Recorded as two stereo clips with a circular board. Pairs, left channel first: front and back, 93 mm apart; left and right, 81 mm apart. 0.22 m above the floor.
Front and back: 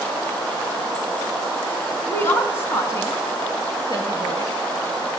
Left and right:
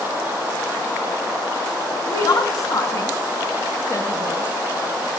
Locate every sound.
2.1 s a woman speaking: 65° left, 2.5 m; by 4.5 s 40° left, 3 m